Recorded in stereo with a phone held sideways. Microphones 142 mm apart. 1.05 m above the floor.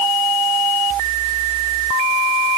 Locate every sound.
Only background noise.